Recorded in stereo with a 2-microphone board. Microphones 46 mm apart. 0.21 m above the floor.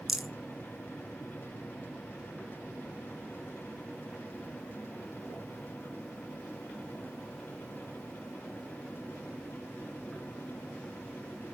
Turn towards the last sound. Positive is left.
turn(degrees=-10)  # may be behind; listen again after turning